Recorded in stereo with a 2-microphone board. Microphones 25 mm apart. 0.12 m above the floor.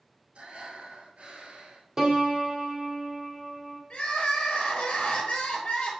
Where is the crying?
50° left (ahead or behind), 1.7 m.